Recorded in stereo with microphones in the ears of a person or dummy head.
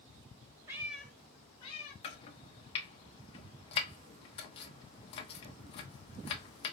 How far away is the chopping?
About 0.6 m.